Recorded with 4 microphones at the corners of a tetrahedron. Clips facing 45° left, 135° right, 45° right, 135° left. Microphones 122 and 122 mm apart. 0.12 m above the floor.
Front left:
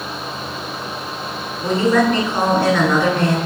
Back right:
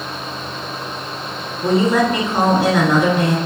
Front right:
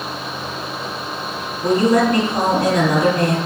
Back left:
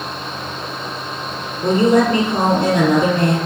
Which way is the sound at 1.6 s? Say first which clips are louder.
Even, back left 1 dB; 165° left.